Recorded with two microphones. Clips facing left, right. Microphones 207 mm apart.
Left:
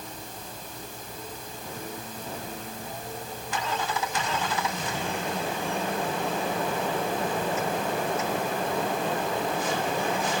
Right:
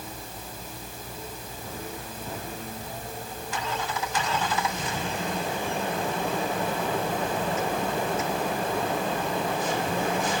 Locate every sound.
Only background noise.